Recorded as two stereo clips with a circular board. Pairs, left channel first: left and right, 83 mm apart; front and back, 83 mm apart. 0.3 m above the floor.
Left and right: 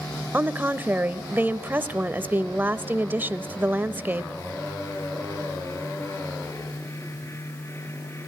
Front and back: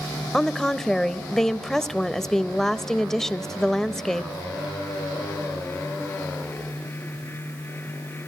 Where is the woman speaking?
80° right, 0.9 m.